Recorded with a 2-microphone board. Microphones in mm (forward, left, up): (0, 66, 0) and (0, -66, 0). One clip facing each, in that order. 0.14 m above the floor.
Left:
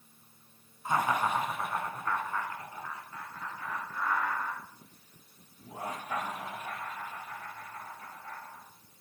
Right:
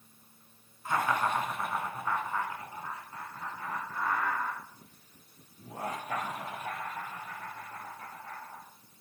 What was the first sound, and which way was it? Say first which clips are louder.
Laughter: left 1 dB; 20° left (ahead or behind).